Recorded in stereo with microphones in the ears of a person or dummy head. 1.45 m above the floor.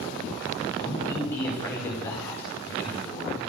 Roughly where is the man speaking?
Centre.